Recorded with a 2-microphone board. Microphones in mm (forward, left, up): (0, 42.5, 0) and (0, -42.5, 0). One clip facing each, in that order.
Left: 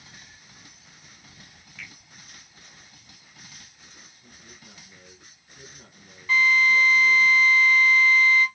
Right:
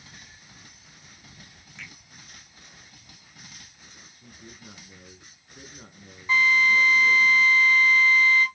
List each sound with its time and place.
1.8 s a finger snap: 25° right (ahead or behind), 5 m
4.2 s a man speaking: 45° right (ahead or behind), 4 m
6.3 s a drill: 20° right (ahead or behind), 6 m